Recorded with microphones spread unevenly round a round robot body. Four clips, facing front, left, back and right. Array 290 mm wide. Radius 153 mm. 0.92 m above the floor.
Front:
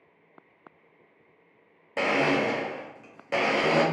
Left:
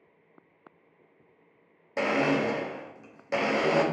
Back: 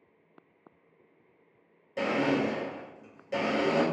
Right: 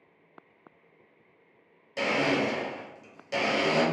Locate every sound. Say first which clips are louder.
2.0 s a blender: left 1 dB, front 3 dB; 25° left, 0.9 m